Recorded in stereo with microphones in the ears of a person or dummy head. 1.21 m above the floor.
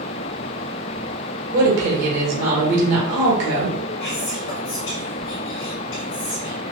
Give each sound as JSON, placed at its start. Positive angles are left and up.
{"t": 1.5, "sound": "a woman speaking", "side_deg": -65, "distance_m": 1.4}
{"t": 4.0, "sound": "whispering", "side_deg": 60, "distance_m": 0.6}